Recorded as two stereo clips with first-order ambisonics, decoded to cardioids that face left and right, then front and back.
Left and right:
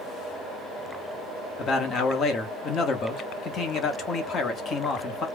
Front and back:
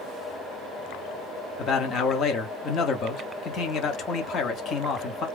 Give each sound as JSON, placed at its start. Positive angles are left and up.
{"t": 1.6, "sound": "a man speaking", "azimuth_deg": 45, "distance_m": 0.8}